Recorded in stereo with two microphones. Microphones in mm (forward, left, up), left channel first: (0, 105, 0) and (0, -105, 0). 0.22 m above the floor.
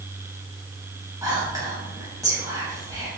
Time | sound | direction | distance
1.2 | whispering | 15° right (ahead or behind) | 1.0 m